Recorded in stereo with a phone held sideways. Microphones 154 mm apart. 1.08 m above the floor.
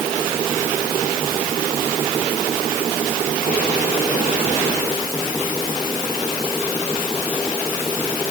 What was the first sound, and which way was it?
Only background noise.